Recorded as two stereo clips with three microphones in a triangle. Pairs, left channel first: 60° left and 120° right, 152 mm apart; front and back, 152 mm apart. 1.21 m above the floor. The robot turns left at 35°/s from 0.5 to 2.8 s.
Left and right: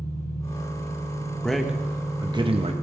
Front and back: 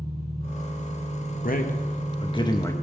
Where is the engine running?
135° left, 4 m; by 2.8 s 55° left, 4 m.